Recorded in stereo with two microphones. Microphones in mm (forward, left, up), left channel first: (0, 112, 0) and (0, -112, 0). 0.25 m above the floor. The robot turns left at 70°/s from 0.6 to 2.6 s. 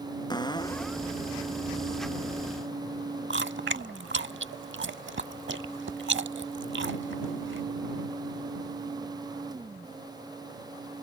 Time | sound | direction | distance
0.3 | a cupboard door | 20° left | ?
3.3 | chewing | 55° right (ahead or behind) | ?